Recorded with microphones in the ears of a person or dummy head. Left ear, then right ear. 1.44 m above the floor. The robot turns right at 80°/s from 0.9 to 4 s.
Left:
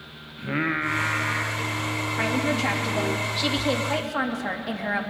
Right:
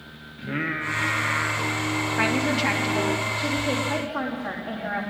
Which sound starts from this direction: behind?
Singing, at 0.4 s.